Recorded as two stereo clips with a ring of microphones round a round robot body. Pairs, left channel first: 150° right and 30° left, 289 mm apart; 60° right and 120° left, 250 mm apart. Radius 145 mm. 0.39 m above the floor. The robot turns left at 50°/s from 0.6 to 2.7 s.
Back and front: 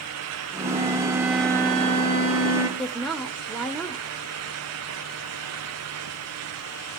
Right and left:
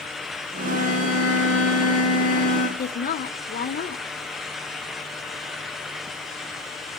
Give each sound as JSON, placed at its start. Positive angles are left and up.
{"t": 0.6, "sound": "a violin", "azimuth_deg": -25, "distance_m": 2.5}
{"t": 2.8, "sound": "a woman speaking", "azimuth_deg": -60, "distance_m": 1.2}